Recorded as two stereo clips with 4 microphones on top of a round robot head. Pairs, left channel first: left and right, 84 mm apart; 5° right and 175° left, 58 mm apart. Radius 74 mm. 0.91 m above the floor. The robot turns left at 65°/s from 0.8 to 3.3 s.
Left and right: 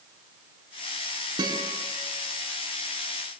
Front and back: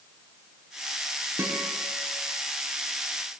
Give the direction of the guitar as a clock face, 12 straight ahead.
4 o'clock.